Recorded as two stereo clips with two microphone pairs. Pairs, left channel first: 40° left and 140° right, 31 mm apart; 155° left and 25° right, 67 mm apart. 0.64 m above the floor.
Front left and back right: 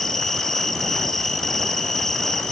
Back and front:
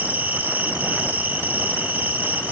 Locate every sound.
0.0 s an insect: 30° right, 2.0 m